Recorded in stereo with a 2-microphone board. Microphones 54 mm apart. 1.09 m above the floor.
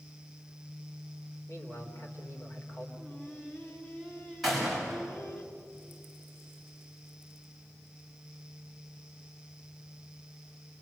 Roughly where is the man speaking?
Left.